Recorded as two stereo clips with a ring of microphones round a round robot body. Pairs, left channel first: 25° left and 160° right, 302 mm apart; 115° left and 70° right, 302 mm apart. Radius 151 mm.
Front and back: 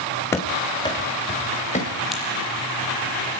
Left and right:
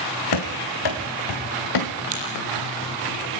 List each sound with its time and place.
0.3 s running footsteps: 105° left, 3 m; by 1.9 s 90° left, 4 m
2.1 s a crack: 70° right, 9 m